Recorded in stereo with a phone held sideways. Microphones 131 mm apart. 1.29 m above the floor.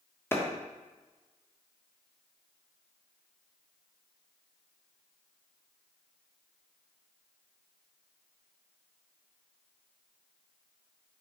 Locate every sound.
0.3 s a clap: 20° left (ahead or behind), 1.3 m